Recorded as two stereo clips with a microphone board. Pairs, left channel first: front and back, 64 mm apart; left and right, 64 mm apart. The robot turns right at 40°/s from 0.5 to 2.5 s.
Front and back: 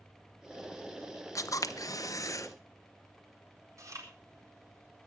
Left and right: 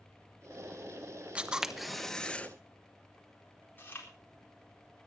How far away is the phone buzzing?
No phone buzzing in this recording.